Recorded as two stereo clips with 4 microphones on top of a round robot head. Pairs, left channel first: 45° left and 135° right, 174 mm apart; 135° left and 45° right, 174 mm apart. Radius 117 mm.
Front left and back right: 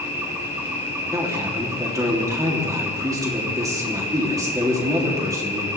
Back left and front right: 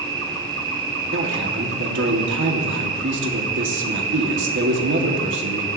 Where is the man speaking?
60° right, 3 m.